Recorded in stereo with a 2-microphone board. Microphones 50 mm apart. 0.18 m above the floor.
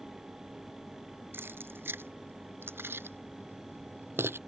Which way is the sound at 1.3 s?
50° right (ahead or behind).